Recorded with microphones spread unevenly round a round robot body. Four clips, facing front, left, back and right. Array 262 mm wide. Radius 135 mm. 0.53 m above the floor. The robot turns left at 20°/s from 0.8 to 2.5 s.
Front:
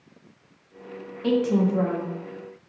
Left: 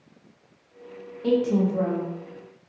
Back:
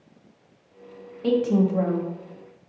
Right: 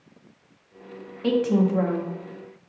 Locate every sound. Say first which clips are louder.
1.2 s a woman speaking: right 1 dB, back 1 dB; 60° right, 0.6 m; by 2.1 s 80° right, 0.6 m